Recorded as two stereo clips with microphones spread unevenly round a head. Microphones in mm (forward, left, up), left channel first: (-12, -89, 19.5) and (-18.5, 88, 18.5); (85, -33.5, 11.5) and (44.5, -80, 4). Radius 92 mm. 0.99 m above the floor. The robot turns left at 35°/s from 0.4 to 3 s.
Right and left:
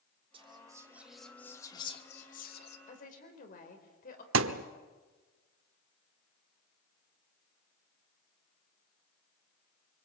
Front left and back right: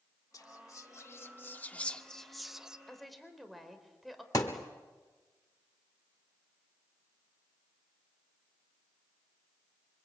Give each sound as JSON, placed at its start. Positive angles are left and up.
{"t": 0.3, "sound": "whispering", "azimuth_deg": 30, "distance_m": 2.0}
{"t": 2.9, "sound": "a woman speaking", "azimuth_deg": -35, "distance_m": 4.0}
{"t": 4.3, "sound": "a thud", "azimuth_deg": 100, "distance_m": 1.1}